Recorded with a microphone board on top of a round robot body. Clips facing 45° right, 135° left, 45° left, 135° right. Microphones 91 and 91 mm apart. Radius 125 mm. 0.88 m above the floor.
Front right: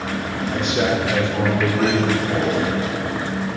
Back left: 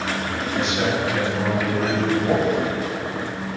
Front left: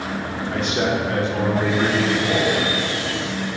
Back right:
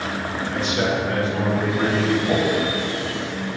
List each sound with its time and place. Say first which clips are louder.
0.5 s a man speaking: front right 3 dB, front left 1 dB; 5° right, 2 m; by 2.2 s 25° right, 2.5 m
2.3 s a whoosh: back left 2 dB, even; 140° left, 2.5 m